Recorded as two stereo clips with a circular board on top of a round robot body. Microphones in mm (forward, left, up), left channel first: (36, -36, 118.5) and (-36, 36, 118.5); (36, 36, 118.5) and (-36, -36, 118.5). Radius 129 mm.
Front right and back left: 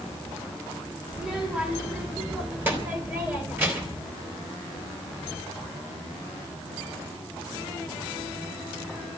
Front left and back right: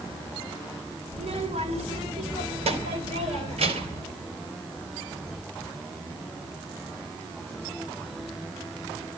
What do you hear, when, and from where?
1.1 s a child speaking: 145° right, 2.5 m; by 4.0 s 160° right, 4.5 m